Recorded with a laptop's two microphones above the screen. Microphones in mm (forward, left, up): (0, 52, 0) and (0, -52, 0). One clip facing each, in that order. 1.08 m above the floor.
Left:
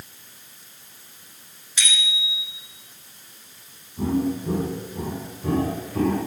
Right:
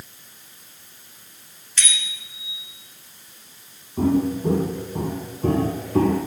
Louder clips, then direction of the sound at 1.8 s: Left 3 dB; 10° left (ahead or behind).